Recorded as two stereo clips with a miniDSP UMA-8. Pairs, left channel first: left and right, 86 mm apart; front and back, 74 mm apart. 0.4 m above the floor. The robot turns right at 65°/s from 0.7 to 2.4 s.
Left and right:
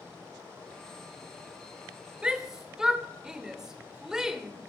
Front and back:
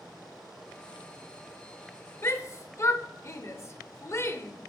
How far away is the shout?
About 1.0 m.